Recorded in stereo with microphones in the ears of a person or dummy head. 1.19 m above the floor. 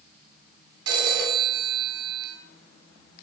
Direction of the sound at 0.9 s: 65° right (ahead or behind).